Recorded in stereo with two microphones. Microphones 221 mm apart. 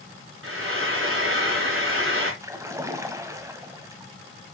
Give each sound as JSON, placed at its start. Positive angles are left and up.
{"t": 0.4, "sound": "frying", "side_deg": -70, "distance_m": 4.5}
{"t": 2.4, "sound": "a splash", "side_deg": -15, "distance_m": 1.4}